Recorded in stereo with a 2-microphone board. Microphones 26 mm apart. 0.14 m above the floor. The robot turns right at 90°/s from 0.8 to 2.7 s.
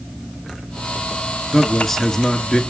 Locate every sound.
1.5 s a man speaking: 10° right, 2 m; by 2.6 s 85° left, 2 m